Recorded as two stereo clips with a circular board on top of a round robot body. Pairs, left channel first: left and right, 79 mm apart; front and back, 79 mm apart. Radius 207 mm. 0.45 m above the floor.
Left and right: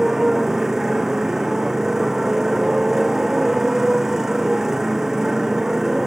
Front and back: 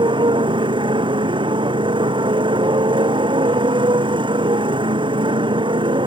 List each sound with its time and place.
0.0 s a motorcycle: 175° right